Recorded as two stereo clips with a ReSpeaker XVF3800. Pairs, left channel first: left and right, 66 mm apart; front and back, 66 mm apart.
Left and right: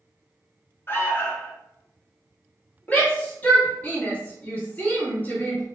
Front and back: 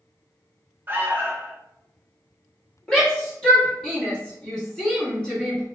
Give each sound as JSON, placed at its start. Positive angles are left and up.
{"t": 0.9, "sound": "an alarm", "azimuth_deg": 130, "distance_m": 0.6}
{"t": 2.9, "sound": "a shout", "azimuth_deg": 65, "distance_m": 1.2}